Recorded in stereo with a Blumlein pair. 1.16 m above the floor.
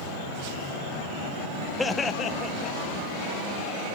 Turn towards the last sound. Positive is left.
turn(degrees=30)